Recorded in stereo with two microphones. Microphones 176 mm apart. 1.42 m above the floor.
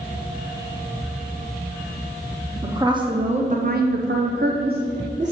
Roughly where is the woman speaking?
Centre.